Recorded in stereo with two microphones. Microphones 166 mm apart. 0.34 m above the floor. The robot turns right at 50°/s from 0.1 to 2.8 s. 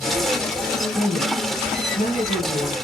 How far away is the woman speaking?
About 2.5 m.